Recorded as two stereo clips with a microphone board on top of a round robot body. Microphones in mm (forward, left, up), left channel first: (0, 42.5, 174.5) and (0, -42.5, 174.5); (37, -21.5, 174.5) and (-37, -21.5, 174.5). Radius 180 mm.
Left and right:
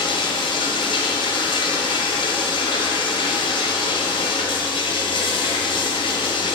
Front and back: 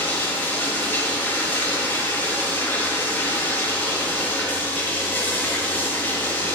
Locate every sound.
0.0 s running water: 65° left, 1.5 m